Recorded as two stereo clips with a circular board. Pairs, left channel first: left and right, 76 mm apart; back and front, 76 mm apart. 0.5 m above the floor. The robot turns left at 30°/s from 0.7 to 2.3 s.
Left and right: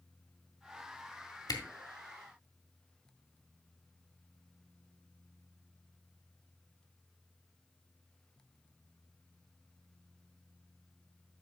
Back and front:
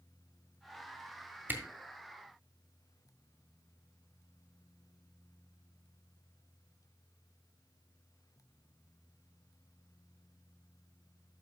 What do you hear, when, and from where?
1.5 s a camera shutter: 65° left, 1.8 m; by 1.6 s 60° left, 1.8 m